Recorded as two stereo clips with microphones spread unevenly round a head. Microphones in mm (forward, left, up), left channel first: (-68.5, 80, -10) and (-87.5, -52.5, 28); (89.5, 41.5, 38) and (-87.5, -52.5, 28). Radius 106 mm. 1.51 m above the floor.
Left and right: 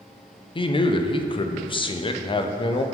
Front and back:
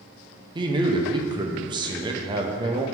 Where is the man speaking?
140° left, 0.7 m.